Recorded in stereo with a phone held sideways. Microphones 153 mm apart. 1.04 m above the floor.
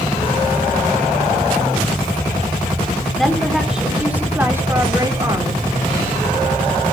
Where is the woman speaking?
Centre (ahead or behind), 3 m; by 5.6 s 30° right (ahead or behind), 2.5 m.